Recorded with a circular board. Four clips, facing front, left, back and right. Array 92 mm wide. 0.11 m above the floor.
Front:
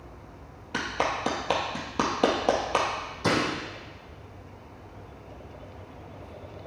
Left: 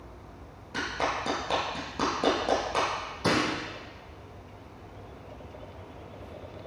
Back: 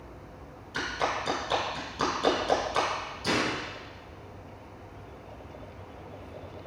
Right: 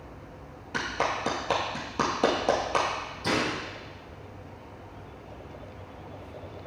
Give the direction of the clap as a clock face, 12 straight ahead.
1 o'clock.